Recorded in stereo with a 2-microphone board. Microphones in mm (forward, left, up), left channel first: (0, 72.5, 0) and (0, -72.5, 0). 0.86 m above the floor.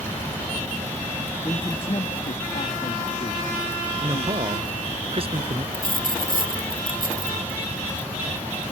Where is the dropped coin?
80° right.